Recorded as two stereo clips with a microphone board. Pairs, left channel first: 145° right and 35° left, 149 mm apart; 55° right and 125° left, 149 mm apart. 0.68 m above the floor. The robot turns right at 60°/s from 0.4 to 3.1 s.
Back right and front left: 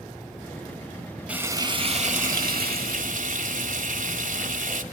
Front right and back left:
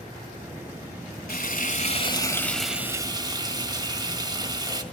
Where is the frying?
45° right, 1.7 m; by 4.8 s 60° left, 1.7 m.